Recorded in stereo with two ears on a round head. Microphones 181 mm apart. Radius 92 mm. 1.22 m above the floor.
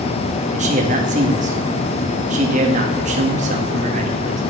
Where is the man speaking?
35° right (ahead or behind), 2.0 m.